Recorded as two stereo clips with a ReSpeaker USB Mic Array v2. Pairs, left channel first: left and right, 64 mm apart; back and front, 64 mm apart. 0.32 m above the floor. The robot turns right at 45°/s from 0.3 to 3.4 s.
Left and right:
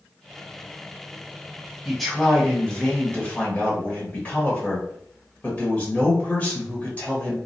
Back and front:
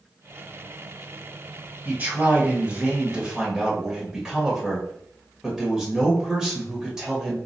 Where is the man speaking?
Straight ahead, 1.0 m; by 7.4 s 70° left, 1.0 m.